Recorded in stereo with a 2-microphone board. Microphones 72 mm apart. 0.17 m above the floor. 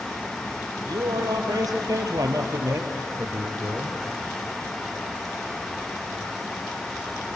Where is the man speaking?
70° right (ahead or behind), 4 m; by 4.0 s 30° right (ahead or behind), 3 m.